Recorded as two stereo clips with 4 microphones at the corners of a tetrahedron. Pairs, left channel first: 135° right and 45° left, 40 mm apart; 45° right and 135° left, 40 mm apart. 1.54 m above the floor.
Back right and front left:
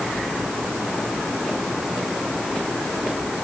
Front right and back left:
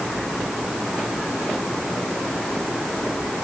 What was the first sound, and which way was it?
Only background noise.